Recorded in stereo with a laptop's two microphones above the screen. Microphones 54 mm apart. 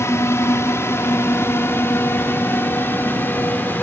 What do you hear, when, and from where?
0.0 s a drone: 55° left (ahead or behind); by 3.8 s 35° left (ahead or behind)